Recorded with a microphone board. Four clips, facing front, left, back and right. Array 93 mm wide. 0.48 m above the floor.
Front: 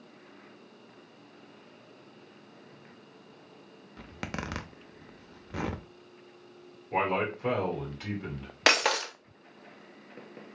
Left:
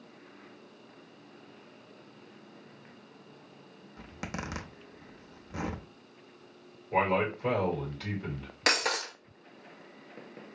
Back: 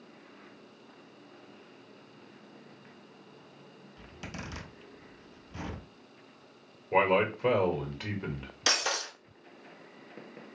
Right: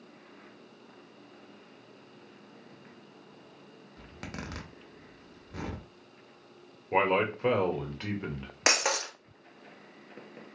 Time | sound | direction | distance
4.0 | a zipper | 15° left | 0.6 m
6.9 | a man speaking | 115° right | 1.5 m
8.7 | breaking glass | 15° right | 0.7 m